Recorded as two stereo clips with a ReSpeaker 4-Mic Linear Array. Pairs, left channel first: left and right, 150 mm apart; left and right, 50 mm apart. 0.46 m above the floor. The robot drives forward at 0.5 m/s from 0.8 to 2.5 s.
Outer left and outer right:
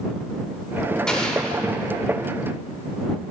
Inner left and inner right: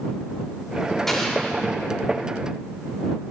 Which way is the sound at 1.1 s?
5° left (ahead or behind).